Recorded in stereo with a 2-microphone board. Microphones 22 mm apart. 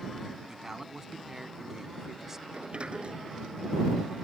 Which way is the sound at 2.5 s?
50° right (ahead or behind).